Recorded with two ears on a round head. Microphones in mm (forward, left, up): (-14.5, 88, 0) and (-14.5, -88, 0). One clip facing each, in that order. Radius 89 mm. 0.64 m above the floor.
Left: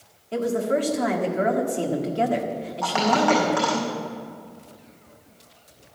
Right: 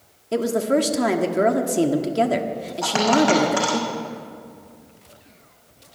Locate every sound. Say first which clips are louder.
0.3 s a woman speaking: right 3 dB; 50° right (ahead or behind), 1.4 m
2.8 s a dropped coin: right 3 dB; 40° right (ahead or behind), 6 m